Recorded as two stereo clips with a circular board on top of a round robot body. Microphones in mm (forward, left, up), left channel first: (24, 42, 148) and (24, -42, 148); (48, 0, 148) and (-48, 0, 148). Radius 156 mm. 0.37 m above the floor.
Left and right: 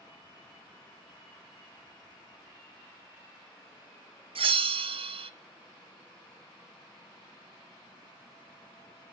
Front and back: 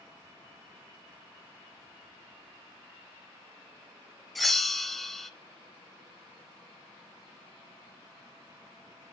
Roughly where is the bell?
Right.